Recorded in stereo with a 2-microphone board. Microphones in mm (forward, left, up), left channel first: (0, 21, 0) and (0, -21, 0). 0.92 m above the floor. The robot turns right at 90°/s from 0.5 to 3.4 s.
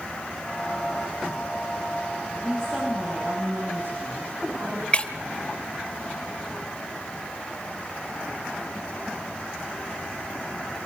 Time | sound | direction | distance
2.4 | a woman speaking | 150° left | 6 m
4.9 | breaking glass | 30° left (ahead or behind) | 1.3 m